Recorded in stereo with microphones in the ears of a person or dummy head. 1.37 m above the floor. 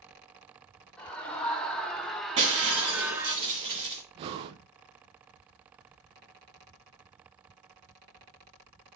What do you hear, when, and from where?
1.0 s a scream: 10° left (ahead or behind), 2.5 m; by 3.4 s 15° right (ahead or behind), 1.0 m
2.4 s breaking glass: 30° right (ahead or behind), 1.9 m
4.2 s breathing: 35° right (ahead or behind), 0.5 m